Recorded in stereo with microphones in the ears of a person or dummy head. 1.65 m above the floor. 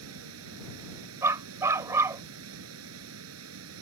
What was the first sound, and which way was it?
Running water, 85° right.